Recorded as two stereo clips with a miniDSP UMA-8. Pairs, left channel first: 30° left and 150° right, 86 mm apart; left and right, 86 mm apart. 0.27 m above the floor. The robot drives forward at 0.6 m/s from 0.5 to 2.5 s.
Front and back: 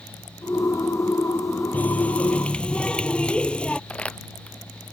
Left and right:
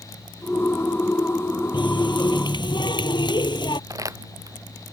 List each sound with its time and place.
1.7 s a running tap: 100° left; by 3.8 s 105° left
3.9 s crumpling: 45° right